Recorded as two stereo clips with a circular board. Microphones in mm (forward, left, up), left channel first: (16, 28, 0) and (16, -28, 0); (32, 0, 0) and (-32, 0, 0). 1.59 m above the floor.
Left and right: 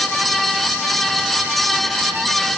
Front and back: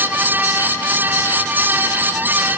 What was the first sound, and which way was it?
Only background noise.